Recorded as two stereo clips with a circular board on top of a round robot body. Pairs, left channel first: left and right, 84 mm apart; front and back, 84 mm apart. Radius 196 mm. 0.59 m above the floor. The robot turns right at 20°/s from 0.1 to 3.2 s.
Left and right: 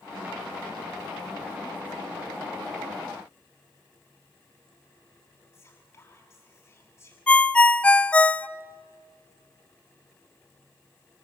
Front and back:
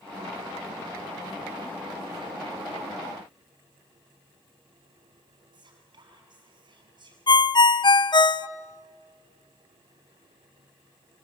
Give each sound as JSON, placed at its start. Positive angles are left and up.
{"t": 5.5, "sound": "whispering", "azimuth_deg": 150, "distance_m": 7.0}
{"t": 7.3, "sound": "a ringtone", "azimuth_deg": 15, "distance_m": 0.8}